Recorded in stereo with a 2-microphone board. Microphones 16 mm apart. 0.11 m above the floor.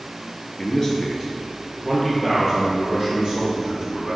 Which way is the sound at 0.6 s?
30° left (ahead or behind).